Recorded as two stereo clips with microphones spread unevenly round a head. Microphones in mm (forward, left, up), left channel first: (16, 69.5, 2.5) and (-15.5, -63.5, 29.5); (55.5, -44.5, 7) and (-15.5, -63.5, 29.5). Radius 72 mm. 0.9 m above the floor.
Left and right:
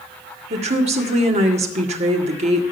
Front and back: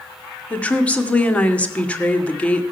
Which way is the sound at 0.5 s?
55° right.